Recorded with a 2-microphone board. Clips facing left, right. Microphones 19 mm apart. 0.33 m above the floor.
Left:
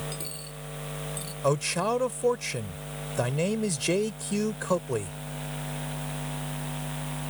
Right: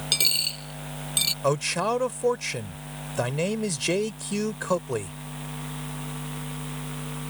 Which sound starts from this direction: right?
A dropped coin, at 0.1 s.